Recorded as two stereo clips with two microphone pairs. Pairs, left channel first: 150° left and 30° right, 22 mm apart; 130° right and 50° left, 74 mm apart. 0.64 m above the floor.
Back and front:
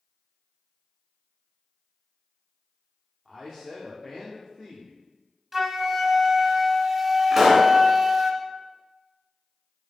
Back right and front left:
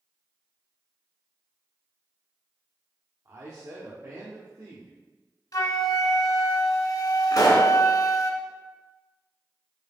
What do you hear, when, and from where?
3.2 s a man speaking: 75° left, 1.2 m
5.5 s a flute: 105° right, 0.8 m
7.3 s a pop: 105° right, 1.9 m